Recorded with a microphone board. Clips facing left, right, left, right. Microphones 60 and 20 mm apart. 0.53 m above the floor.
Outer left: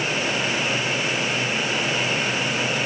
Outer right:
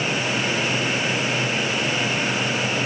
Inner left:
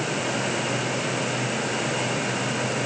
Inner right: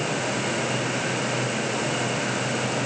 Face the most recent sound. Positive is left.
No sound to turn to.